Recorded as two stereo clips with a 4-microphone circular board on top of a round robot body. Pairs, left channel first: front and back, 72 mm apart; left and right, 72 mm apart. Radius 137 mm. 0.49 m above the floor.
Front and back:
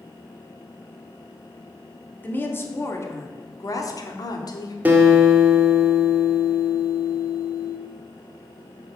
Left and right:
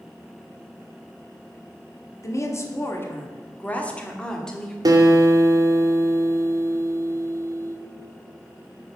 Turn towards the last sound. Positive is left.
turn(degrees=-115)